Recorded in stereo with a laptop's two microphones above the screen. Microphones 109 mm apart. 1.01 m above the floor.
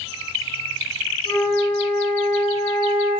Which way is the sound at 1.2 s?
65° left (ahead or behind).